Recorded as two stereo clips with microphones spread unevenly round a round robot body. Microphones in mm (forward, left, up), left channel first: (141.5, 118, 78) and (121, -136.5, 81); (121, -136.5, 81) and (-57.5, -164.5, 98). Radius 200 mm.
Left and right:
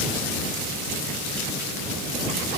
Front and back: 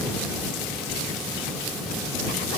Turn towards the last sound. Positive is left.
No sound to turn to.